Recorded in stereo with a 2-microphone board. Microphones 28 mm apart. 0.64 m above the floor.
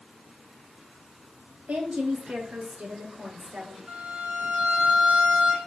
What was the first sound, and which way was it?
A woman speaking, 75° right (ahead or behind).